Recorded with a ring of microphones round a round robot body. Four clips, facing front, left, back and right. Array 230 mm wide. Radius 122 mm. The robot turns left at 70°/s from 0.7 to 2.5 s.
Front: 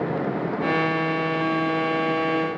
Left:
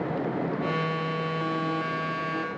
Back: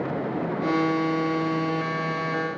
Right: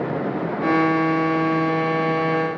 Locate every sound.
Only background noise.